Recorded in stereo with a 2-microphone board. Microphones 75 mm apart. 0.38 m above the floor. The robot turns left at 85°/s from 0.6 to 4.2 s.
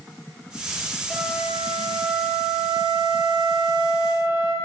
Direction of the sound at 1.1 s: 10° left.